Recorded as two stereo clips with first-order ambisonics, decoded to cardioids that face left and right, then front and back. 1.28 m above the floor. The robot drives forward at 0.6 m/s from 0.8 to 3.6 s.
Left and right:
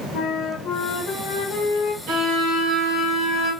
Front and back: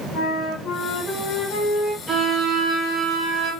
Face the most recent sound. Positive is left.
turn(degrees=-140)